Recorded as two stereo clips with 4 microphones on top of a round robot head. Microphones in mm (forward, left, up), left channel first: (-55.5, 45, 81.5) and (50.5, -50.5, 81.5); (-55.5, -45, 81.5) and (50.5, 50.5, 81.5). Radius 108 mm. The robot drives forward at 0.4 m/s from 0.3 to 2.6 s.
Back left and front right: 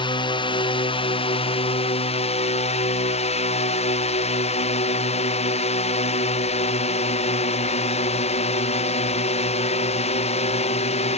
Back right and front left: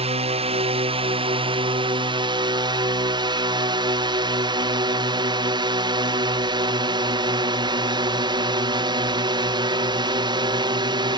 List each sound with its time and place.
0.0 s a drone: 85° left; by 11.2 s 100° left